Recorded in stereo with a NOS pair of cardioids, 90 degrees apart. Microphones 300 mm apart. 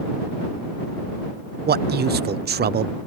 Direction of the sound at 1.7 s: 35° right.